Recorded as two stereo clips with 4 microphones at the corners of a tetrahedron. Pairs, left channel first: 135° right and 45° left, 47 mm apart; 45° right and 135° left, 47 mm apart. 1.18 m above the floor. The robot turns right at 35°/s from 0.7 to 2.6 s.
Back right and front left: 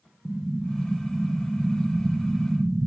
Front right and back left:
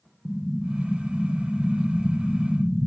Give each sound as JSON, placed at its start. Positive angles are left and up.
{"t": 0.2, "sound": "an explosion", "azimuth_deg": -115, "distance_m": 0.5}